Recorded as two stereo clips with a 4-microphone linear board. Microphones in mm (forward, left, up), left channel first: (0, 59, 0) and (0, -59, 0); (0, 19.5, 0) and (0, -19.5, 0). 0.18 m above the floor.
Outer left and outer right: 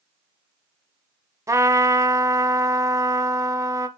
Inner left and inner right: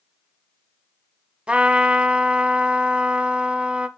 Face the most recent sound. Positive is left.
turn(degrees=-25)  # may be behind; listen again after turning